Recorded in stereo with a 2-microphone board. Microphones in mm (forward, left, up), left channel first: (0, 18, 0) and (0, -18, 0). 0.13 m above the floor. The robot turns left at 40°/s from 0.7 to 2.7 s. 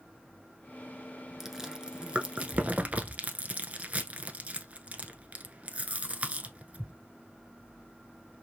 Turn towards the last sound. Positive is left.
turn(degrees=-40)  # may be behind; listen again after turning